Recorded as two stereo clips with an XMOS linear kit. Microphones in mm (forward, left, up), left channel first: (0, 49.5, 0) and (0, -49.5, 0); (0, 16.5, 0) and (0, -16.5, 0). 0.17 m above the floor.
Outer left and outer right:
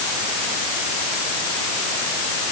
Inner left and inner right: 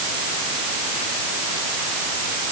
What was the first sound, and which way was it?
Only background noise.